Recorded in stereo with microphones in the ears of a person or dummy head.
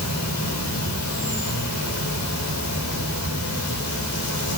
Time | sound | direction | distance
0.0 | an insect | 90° left | 4 m